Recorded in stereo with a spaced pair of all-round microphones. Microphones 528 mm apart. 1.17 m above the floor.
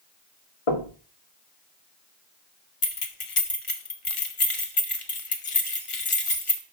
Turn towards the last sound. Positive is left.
turn(degrees=70)  # may be behind; listen again after turning